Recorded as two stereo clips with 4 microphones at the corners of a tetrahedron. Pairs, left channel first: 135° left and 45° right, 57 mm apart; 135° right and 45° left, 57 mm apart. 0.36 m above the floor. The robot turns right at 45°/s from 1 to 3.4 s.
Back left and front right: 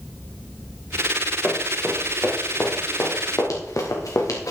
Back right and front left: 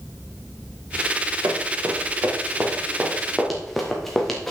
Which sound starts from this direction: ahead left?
Running footsteps, at 1.4 s.